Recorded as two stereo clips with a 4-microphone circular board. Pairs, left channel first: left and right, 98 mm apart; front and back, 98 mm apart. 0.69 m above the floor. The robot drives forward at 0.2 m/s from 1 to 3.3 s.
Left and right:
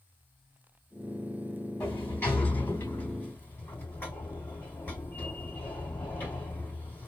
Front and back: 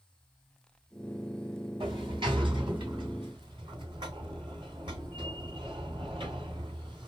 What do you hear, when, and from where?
1.8 s a sliding door: 155° left, 2.5 m